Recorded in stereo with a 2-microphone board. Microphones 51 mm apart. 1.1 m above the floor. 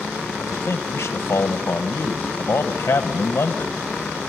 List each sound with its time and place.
0.4 s a man speaking: 60° left (ahead or behind), 1.0 m